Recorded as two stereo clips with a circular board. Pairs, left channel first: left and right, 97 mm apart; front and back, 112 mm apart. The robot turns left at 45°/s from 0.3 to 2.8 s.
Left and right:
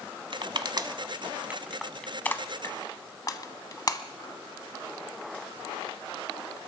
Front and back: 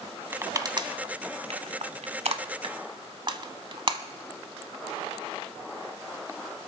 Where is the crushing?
110° right, 1.1 m; by 4.0 s 135° left, 1.1 m.